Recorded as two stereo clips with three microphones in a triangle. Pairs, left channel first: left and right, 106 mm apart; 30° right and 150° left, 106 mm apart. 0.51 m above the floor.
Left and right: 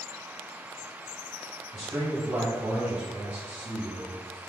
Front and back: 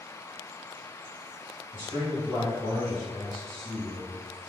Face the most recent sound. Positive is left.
turn(degrees=-60)